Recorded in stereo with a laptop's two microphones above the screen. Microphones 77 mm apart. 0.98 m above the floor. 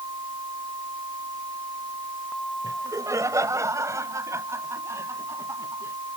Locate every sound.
2.6 s laughter: 45° right (ahead or behind); by 5.9 s 35° right (ahead or behind)